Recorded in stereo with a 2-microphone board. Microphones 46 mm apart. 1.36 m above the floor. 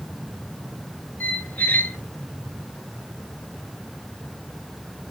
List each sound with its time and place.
1.2 s a squeak: 35° left (ahead or behind), 0.5 m